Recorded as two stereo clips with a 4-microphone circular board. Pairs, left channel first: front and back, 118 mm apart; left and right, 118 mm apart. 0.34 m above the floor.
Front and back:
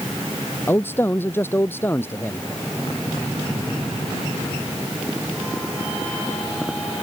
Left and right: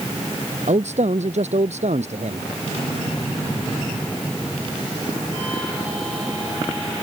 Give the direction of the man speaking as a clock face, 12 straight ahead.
2 o'clock.